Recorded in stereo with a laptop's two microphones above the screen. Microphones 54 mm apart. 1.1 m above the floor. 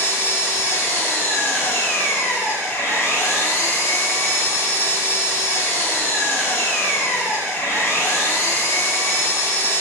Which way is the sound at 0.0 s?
75° left (ahead or behind).